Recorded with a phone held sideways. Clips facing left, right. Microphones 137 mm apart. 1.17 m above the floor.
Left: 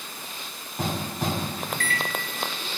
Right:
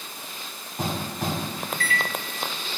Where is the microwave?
45° left (ahead or behind), 0.9 m.